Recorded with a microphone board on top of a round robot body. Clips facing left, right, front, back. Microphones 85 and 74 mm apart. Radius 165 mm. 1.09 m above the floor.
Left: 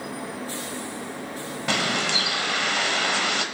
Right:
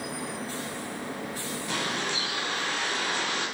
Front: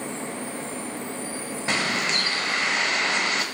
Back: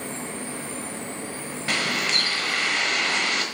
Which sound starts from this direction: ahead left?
A bird, at 1.7 s.